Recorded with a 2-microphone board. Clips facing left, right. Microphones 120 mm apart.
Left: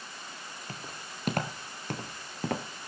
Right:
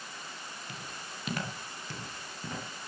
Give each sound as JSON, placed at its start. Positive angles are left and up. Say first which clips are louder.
{"t": 0.7, "sound": "footsteps", "louder": "left 3 dB", "side_deg": 40, "distance_m": 3.0}